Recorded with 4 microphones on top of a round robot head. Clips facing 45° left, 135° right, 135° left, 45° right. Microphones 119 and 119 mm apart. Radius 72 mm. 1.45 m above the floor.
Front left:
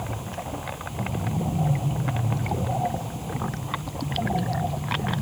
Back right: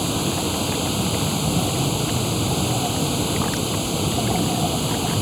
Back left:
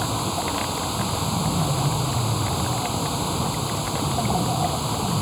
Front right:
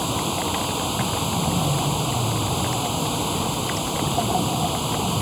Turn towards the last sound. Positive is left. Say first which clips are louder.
# back right 10 dB, front right 1 dB
turn(degrees=-125)